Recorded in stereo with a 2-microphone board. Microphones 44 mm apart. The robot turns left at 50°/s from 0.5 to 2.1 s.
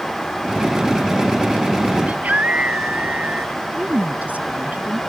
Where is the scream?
35° right (ahead or behind).